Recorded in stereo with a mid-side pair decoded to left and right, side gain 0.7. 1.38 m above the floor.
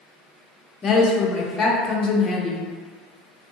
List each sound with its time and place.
0.8 s a woman speaking: 35° left, 0.7 m